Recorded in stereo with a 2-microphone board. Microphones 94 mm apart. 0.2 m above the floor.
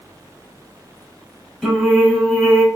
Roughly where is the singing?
Centre.